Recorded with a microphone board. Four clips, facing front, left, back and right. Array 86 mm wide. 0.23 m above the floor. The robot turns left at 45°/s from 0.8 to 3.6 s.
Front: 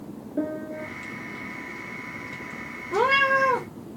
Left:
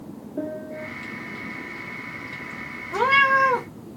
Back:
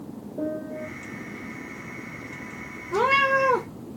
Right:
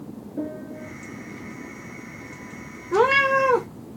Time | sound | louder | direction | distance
0.4 | a piano | left 1 dB, front 1 dB | 5° left | 1.3 m
2.9 | a cat meowing | even, even | 85° right | 2.5 m